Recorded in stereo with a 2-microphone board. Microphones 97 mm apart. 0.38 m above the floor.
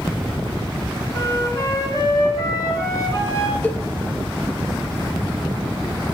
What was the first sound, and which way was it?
A flute, 35° left (ahead or behind).